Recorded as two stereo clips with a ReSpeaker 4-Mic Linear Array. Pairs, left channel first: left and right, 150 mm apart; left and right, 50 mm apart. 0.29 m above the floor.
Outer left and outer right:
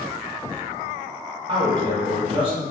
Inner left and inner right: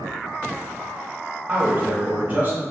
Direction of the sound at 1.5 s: 35° right (ahead or behind).